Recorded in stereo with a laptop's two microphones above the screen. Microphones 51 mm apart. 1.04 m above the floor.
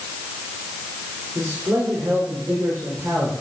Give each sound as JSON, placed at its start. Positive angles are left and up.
{"t": 1.4, "sound": "a man speaking", "side_deg": -80, "distance_m": 4.0}